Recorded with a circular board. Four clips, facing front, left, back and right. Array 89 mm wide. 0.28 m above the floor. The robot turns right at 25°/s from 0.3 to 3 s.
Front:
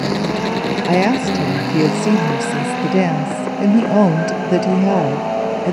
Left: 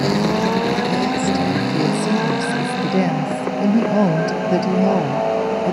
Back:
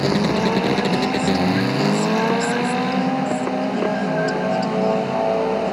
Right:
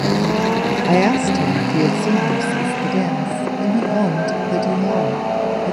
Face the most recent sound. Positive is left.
turn(degrees=10)